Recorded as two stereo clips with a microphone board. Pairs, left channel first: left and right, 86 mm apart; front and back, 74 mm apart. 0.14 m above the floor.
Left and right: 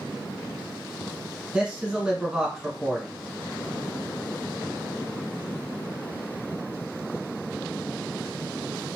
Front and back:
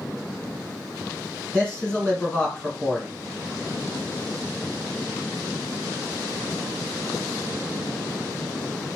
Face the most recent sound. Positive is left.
turn(degrees=-40)